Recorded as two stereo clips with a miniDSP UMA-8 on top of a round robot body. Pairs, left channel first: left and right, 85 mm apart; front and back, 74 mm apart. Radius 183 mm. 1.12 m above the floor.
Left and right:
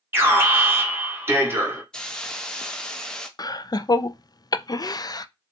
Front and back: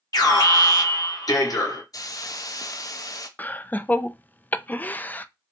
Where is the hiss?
10° left, 0.9 m.